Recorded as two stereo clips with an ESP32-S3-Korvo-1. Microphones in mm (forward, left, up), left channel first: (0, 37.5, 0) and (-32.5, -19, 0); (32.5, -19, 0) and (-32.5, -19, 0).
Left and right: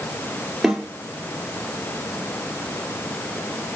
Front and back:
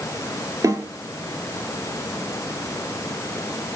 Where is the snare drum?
155° left, 1.5 m.